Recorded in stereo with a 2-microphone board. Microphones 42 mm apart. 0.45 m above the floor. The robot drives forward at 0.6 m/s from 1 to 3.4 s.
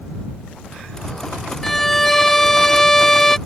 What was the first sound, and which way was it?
A violin, 5° left (ahead or behind).